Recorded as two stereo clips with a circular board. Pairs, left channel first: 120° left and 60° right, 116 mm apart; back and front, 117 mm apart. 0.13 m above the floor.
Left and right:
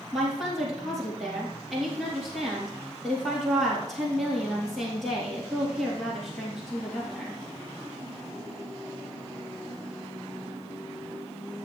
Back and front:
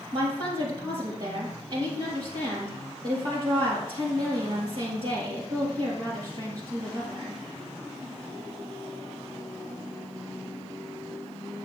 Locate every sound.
0.1 s a woman speaking: 30° left, 3.5 m